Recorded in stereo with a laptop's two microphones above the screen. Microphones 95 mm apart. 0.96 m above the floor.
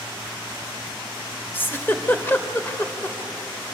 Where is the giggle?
25° left (ahead or behind), 2.0 m.